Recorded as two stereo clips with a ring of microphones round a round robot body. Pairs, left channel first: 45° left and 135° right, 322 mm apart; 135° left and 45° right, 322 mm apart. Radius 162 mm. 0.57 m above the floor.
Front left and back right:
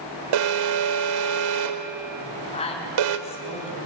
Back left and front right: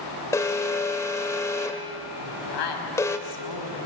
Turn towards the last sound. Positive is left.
turn(degrees=115)